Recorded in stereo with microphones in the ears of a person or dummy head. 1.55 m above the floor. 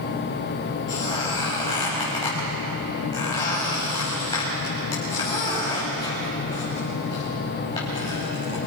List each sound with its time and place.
0.9 s a squeak: 20° left (ahead or behind), 6 m